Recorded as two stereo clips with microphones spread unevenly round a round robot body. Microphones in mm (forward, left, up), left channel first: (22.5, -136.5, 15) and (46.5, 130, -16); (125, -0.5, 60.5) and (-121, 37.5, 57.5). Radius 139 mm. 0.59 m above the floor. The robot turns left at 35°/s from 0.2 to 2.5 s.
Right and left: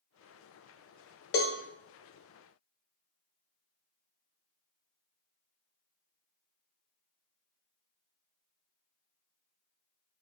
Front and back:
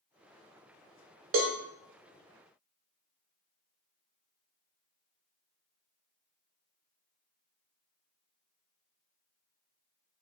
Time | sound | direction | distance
1.3 | a cowbell | 145° right | 0.5 m